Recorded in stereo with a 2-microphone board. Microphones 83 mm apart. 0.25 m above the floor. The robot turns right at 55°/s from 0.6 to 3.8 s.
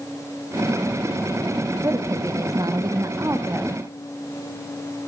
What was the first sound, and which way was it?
A woman speaking, 130° right.